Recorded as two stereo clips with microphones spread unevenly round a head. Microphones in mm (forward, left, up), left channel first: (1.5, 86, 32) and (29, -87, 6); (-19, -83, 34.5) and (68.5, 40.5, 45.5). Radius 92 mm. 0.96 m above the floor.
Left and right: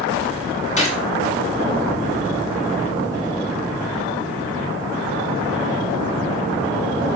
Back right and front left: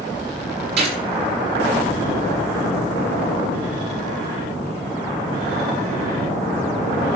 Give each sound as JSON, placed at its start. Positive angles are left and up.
{"t": 0.8, "sound": "a gunshot", "azimuth_deg": 50, "distance_m": 6.5}